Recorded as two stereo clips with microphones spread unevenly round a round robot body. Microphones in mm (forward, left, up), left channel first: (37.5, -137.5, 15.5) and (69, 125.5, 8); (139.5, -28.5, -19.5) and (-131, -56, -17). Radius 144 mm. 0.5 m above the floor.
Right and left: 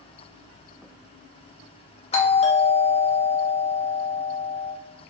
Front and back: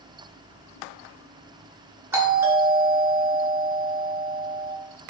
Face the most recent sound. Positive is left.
turn(degrees=-110)